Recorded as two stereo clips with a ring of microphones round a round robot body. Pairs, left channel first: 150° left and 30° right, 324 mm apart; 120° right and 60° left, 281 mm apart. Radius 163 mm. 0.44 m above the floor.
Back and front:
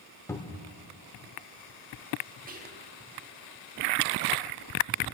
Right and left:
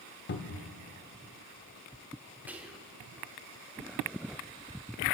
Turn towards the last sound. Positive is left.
turn(degrees=-15)